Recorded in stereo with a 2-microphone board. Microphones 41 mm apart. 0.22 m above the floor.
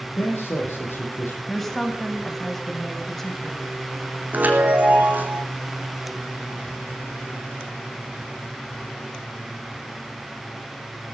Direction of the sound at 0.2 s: 70° left (ahead or behind).